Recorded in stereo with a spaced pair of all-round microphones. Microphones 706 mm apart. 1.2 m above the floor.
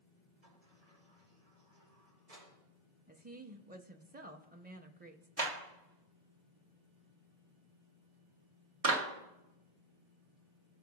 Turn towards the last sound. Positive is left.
turn(degrees=-55)  # may be behind; listen again after turning